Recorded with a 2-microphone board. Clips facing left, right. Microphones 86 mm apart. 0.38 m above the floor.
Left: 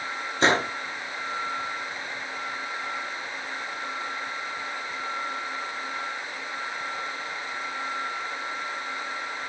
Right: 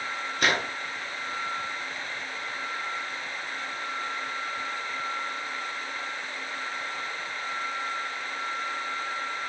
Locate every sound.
0.4 s a gunshot: 25° left (ahead or behind), 0.8 m